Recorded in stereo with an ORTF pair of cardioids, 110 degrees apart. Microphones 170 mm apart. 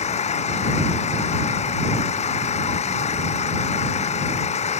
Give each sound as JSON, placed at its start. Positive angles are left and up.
{"t": 0.0, "sound": "an engine running", "azimuth_deg": 40}